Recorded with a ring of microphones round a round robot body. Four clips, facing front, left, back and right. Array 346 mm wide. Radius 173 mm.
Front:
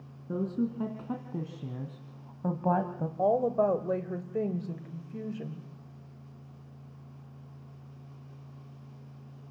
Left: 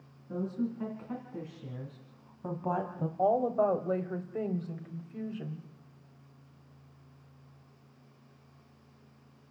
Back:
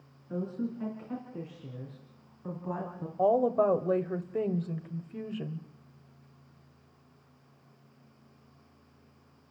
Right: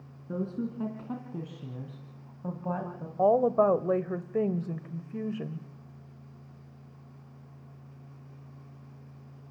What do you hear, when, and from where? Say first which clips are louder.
0.3 s a woman speaking: right 1 dB, front 3 dB; 35° right, 4 m; by 3.1 s 25° left, 2 m
3.2 s a woman speaking: right 4 dB, back 1 dB; 100° right, 1.6 m